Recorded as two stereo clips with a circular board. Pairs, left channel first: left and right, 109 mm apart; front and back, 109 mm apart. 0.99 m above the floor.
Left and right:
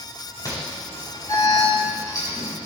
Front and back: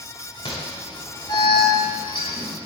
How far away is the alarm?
About 6 m.